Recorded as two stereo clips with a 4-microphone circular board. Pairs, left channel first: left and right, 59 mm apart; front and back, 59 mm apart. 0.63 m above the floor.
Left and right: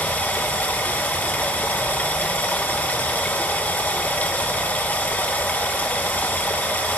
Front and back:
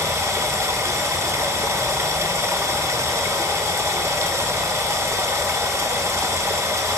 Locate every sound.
0.0 s running water: 150° left, 0.7 m